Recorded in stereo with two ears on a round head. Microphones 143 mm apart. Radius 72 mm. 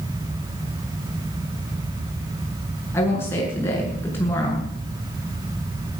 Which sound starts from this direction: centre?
A woman speaking, at 2.9 s.